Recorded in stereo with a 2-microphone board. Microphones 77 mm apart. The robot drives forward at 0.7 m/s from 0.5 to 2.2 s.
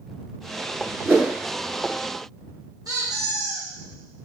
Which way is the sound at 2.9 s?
55° right (ahead or behind).